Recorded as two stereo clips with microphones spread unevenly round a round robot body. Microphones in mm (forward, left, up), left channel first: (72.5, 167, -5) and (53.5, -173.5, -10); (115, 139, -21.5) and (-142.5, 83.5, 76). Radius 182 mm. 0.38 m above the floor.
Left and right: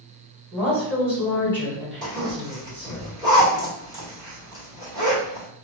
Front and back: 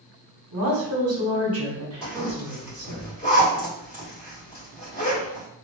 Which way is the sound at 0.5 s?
170° left.